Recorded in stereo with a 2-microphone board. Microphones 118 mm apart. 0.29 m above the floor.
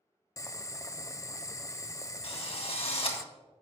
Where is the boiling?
25° left (ahead or behind), 0.5 m.